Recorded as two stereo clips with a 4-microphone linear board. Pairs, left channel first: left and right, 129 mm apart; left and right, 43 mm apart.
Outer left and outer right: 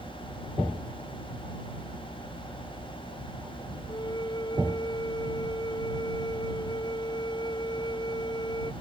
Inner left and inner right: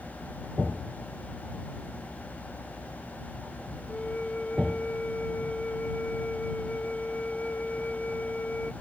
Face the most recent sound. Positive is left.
turn(degrees=35)  # may be behind; listen again after turning